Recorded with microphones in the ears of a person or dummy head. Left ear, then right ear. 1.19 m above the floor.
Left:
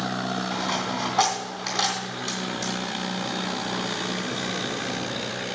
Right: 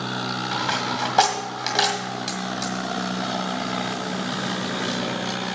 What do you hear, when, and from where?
0.5 s a dropped coin: 45° right (ahead or behind), 2 m